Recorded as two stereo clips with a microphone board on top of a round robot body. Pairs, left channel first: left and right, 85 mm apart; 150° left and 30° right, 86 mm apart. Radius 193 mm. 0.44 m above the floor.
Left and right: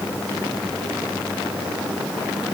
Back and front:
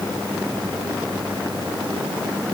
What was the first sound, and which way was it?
Only background noise.